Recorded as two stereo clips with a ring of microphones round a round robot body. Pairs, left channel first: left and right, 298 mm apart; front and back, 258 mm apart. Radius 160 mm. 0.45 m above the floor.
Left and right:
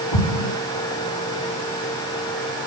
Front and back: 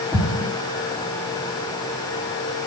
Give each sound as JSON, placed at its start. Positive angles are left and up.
{"t": 0.1, "sound": "an explosion", "azimuth_deg": 80, "distance_m": 5.0}